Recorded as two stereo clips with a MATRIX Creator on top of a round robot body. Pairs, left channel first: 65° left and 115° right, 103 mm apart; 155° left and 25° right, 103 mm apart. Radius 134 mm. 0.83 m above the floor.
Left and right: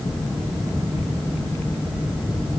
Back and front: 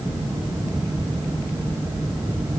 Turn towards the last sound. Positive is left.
No sound to turn to.